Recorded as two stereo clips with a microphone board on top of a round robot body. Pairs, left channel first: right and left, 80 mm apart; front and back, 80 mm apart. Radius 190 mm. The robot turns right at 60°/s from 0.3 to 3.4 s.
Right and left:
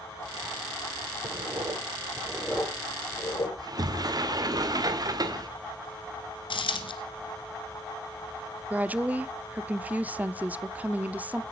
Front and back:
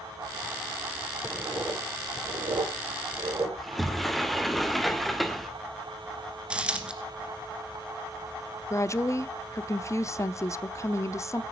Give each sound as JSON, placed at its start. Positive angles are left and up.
{"t": 1.2, "sound": "writing", "azimuth_deg": 105, "distance_m": 7.5}
{"t": 3.6, "sound": "a sliding door", "azimuth_deg": 90, "distance_m": 2.0}
{"t": 6.5, "sound": "a dropped coin", "azimuth_deg": -100, "distance_m": 1.9}
{"t": 8.7, "sound": "a woman speaking", "azimuth_deg": 30, "distance_m": 1.0}